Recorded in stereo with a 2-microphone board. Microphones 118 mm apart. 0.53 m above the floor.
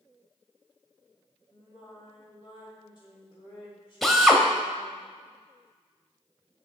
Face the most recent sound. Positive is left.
turn(degrees=0)  # may be behind; listen again after turning